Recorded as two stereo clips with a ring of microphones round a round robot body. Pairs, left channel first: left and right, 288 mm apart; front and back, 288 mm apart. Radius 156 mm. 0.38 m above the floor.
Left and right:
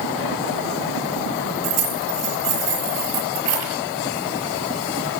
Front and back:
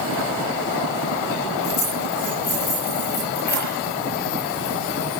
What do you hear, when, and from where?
1.6 s keys jangling: 60° right, 6.5 m